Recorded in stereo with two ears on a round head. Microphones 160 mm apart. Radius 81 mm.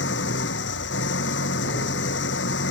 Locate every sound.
0.0 s an engine running: 85° left